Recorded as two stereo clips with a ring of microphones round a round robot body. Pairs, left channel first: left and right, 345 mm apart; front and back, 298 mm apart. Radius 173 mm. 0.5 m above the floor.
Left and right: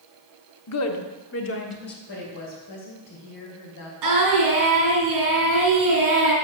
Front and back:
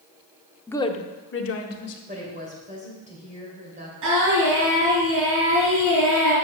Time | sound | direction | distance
0.7 | a woman speaking | 85° left | 0.9 m
2.1 | a woman speaking | 115° left | 2.5 m
4.0 | singing | 125° right | 3.5 m